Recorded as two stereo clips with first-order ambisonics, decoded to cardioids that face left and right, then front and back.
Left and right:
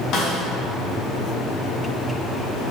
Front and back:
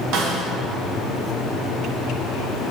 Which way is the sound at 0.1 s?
145° left.